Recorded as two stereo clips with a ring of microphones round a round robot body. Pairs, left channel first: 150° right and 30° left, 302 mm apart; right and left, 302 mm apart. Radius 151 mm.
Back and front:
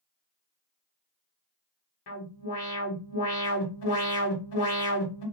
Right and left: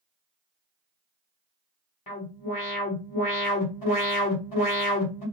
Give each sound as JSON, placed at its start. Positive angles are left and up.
{"t": 2.1, "sound": "an alarm", "azimuth_deg": -135, "distance_m": 1.5}